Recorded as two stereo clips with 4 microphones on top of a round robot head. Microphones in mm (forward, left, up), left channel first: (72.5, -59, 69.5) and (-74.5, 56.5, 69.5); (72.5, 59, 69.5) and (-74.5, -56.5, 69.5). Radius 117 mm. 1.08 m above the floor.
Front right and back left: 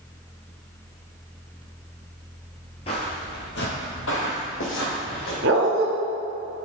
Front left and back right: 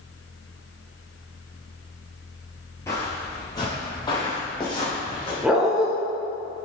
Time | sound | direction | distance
2.9 | footsteps | 20° right | 1.1 m
5.4 | a dog barking | 135° left | 0.8 m